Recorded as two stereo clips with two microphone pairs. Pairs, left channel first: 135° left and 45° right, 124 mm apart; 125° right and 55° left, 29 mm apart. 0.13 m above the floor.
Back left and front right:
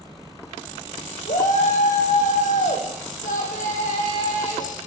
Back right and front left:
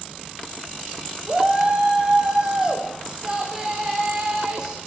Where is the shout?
120° left, 7.5 m; by 4.8 s 125° left, 9.5 m.